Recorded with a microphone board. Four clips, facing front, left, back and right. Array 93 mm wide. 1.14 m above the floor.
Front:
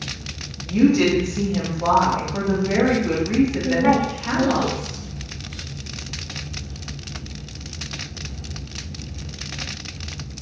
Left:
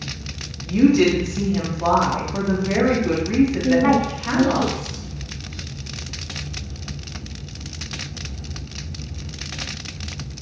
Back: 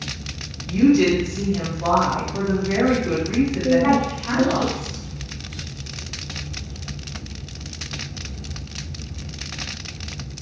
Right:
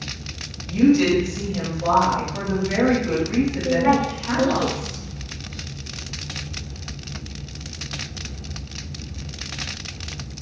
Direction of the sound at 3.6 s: 90° left.